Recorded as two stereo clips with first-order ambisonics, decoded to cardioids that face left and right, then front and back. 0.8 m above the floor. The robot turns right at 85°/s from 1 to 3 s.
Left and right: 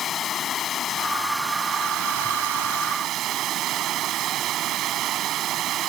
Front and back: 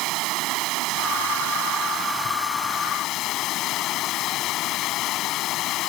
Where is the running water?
150° left; by 5.9 s 40° right.